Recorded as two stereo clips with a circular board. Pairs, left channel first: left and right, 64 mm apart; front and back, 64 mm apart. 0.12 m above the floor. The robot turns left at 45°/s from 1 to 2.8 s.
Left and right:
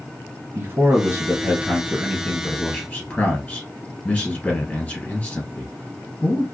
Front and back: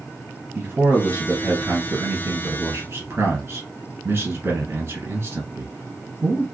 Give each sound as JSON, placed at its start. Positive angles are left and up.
{"t": 0.6, "sound": "a man speaking", "azimuth_deg": -130, "distance_m": 1.9}